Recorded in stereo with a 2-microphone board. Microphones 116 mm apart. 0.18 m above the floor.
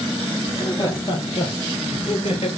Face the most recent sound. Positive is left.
turn(degrees=65)  # may be behind; listen again after turning